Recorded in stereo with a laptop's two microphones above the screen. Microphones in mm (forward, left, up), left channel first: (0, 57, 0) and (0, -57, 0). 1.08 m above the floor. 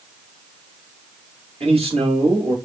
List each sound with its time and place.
1.6 s a man speaking: 60° right (ahead or behind), 1.9 m